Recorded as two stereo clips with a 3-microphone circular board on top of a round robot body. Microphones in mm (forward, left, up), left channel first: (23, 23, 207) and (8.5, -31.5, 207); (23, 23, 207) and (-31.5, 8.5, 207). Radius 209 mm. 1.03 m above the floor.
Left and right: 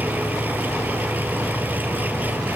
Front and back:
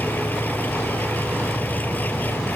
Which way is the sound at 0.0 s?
45° right.